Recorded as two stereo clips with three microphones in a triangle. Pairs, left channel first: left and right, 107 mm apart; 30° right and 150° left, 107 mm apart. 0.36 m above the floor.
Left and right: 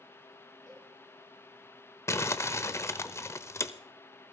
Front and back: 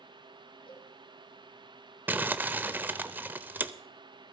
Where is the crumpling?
100° left, 0.6 m.